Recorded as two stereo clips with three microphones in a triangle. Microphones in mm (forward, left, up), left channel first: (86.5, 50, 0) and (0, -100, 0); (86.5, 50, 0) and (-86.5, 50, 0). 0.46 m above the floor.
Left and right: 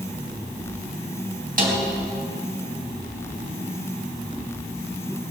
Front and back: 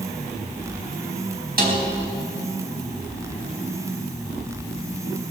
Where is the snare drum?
155° right, 3.5 m.